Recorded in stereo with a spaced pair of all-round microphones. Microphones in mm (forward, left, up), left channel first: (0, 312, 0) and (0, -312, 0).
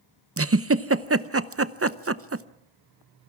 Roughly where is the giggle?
Right.